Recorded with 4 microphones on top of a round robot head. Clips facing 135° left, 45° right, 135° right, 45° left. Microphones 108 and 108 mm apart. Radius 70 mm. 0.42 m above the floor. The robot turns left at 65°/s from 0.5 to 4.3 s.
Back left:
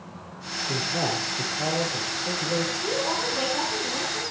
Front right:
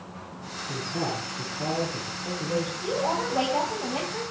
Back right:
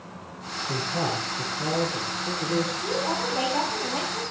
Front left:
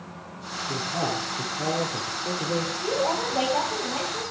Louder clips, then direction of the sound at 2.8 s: Front right 1 dB, front left 2 dB; 10° left.